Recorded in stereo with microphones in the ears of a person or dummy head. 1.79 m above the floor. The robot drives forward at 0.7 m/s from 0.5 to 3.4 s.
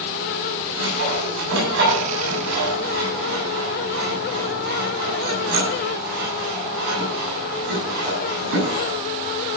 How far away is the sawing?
About 6.5 m.